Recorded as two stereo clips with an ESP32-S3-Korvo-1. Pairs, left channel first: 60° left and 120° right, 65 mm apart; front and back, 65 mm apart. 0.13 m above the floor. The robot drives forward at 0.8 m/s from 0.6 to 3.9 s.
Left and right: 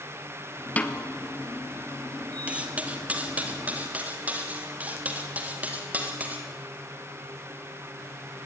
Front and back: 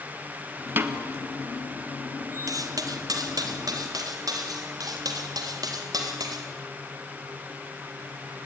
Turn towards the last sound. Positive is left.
turn(degrees=175)